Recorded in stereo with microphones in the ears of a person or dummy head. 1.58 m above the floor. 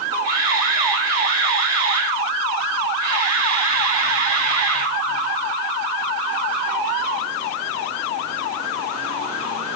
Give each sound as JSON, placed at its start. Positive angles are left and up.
{"t": 0.2, "sound": "a camera shutter", "side_deg": -25, "distance_m": 4.5}